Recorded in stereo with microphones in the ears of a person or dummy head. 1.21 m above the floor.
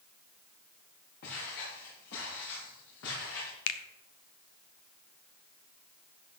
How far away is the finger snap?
About 0.9 m.